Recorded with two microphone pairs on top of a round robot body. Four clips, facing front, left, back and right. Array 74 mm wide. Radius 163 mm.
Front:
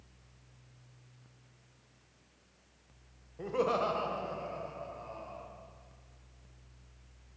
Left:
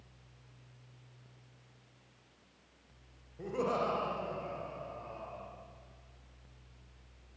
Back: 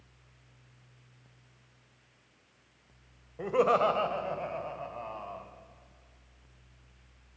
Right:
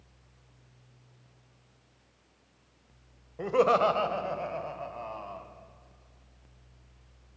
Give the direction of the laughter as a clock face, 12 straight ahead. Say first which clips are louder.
Right 10 dB, back 6 dB; 4 o'clock.